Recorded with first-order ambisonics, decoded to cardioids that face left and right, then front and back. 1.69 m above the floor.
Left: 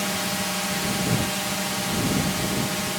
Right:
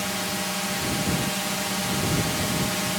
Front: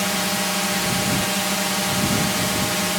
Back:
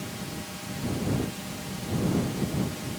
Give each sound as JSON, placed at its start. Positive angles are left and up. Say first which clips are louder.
{"t": 0.0, "sound": "a drone", "louder": "left 2 dB, front 16 dB", "azimuth_deg": 5}